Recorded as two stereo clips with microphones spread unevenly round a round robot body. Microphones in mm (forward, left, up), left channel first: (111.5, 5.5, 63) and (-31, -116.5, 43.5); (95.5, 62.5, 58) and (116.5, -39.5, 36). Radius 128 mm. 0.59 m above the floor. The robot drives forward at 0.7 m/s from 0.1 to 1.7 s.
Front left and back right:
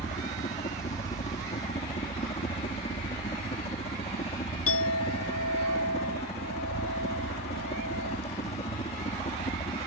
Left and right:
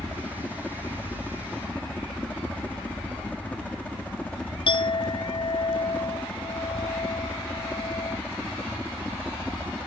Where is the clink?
65° left.